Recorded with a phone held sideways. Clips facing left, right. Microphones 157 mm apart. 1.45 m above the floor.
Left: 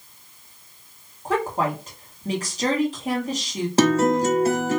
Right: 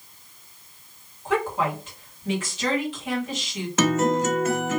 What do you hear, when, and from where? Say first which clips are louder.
1.2 s a woman speaking: left 1 dB; 40° left (ahead or behind), 2 m
3.8 s a guitar: left 3 dB; 35° left (ahead or behind), 1.1 m